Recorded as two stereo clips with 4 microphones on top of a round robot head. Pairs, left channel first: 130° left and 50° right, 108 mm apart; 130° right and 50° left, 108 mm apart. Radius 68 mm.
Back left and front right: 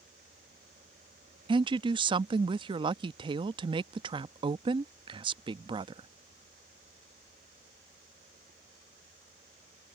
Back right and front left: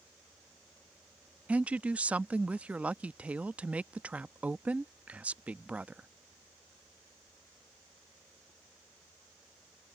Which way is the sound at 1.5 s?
25° right.